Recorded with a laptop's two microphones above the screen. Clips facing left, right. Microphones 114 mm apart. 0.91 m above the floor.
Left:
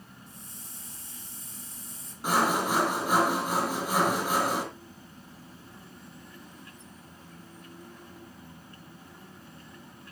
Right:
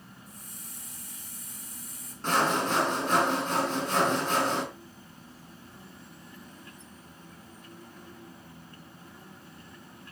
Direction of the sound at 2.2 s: 10° left (ahead or behind).